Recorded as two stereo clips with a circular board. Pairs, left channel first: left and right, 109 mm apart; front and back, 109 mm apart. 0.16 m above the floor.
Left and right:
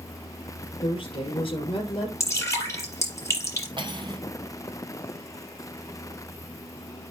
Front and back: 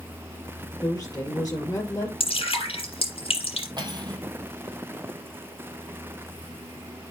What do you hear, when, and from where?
0.8 s a woman speaking: 55° left, 4 m
2.2 s dripping: 30° left, 5 m
3.8 s cutlery clinking: 135° right, 3 m